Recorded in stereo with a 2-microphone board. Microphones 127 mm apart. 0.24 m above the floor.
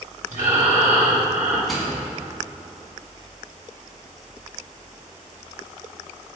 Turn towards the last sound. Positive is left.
turn(degrees=0)  # may be behind; listen again after turning